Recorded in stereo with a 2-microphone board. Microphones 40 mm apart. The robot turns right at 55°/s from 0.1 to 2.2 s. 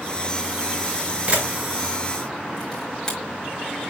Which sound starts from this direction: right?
A camera shutter, at 1.3 s.